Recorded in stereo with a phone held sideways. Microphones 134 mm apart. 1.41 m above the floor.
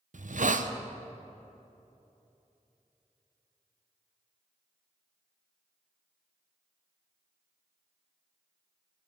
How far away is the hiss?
About 0.6 m.